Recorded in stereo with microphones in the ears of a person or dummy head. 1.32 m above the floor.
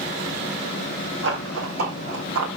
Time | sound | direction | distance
1.2 | running footsteps | 65° right (ahead or behind) | 4.5 m